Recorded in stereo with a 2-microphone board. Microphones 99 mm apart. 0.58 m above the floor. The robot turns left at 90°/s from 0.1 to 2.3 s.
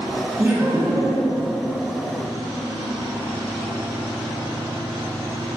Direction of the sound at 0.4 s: 15° right (ahead or behind).